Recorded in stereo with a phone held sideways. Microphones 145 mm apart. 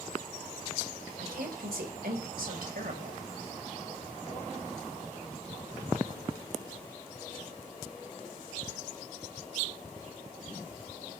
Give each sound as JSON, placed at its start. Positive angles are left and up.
{"t": 1.2, "sound": "a woman speaking", "side_deg": -85, "distance_m": 4.0}